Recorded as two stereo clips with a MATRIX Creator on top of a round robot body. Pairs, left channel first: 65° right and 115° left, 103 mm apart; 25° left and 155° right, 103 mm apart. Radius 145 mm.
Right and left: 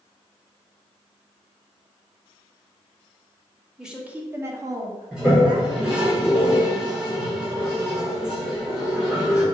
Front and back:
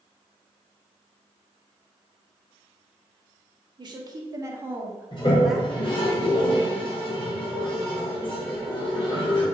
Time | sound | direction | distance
3.8 | a woman speaking | 165° right | 0.9 m
5.1 | a toilet flushing | 35° left | 1.5 m